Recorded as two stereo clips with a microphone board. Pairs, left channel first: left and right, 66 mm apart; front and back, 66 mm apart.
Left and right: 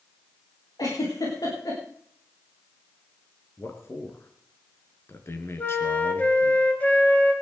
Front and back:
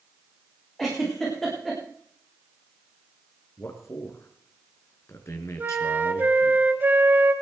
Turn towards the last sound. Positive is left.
turn(degrees=140)